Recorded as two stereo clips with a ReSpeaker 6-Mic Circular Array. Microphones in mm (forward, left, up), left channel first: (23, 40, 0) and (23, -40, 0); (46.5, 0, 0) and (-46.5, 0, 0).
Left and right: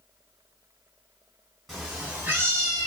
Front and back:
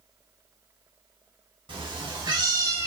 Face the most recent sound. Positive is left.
turn(degrees=-120)